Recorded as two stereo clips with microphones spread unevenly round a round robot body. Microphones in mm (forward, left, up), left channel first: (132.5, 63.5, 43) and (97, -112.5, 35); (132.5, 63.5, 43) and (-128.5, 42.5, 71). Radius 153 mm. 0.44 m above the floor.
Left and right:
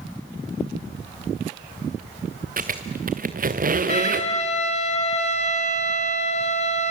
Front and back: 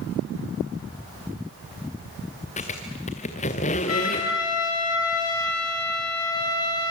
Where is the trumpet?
30° left, 3.5 m.